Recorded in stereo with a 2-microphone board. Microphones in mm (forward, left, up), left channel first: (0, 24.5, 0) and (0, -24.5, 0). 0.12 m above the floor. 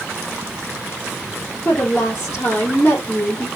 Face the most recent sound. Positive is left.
turn(degrees=35)  # may be behind; listen again after turning